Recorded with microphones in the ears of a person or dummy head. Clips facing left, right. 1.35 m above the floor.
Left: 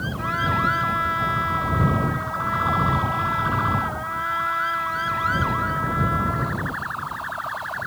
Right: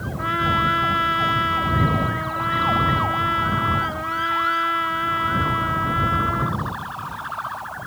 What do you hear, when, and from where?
0.2 s a trumpet: 45° right (ahead or behind)